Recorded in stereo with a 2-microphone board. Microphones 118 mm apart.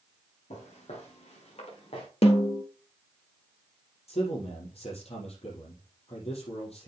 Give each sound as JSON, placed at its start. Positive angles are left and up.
{"t": 0.5, "sound": "footsteps", "side_deg": 85, "distance_m": 4.5}
{"t": 2.2, "sound": "a snare drum", "side_deg": 65, "distance_m": 1.5}
{"t": 4.1, "sound": "a man speaking", "side_deg": 70, "distance_m": 5.0}